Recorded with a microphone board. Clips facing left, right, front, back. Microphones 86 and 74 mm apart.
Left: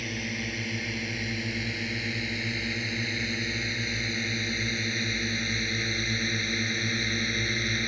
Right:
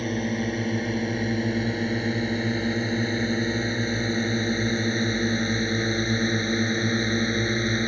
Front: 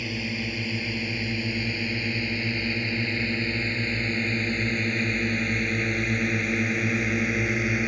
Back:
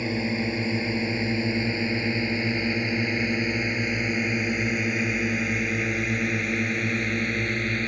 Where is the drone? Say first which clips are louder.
Right 8 dB, back 5 dB; 130° right; by 7.9 s 75° right.